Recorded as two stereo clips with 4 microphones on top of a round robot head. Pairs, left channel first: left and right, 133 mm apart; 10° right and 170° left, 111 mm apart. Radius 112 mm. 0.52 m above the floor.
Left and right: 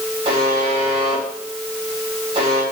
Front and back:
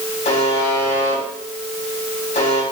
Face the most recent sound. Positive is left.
turn(degrees=-35)